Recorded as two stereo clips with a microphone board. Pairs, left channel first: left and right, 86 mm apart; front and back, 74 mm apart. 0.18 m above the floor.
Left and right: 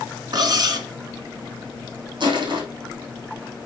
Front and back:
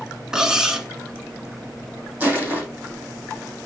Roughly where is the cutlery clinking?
Right.